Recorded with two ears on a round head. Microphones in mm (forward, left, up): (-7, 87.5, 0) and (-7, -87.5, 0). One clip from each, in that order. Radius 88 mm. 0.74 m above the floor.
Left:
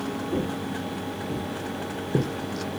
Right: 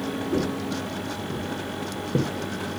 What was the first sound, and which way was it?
Footsteps, centre (ahead or behind).